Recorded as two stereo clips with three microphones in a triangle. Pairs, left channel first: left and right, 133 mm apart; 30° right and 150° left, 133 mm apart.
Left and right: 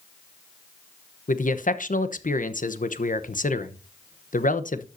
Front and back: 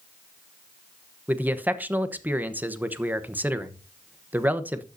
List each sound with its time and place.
1.3 s a man speaking: 75° left, 1.0 m